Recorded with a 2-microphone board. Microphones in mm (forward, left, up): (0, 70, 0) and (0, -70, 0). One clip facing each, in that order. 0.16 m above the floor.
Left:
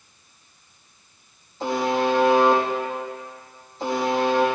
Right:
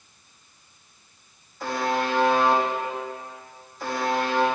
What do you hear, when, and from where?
1.6 s a buzzer: 30° left (ahead or behind), 5.5 m